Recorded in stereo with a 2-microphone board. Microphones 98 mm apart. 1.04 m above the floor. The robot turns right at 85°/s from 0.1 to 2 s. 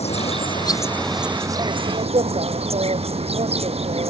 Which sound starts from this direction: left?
An insect, at 0.0 s.